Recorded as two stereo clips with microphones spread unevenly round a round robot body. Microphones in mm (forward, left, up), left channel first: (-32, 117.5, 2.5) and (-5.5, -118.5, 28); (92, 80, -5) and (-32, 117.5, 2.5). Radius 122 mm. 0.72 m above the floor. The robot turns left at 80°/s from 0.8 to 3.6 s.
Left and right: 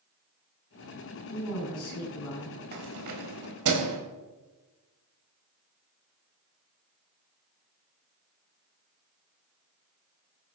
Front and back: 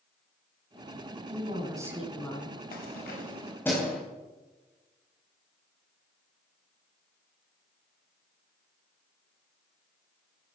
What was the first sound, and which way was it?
A woman speaking, 135° left.